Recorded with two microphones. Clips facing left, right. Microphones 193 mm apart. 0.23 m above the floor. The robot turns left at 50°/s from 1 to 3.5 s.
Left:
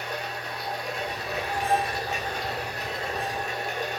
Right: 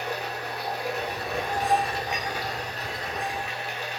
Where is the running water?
105° right, 0.9 m; by 4.0 s 130° left, 0.9 m.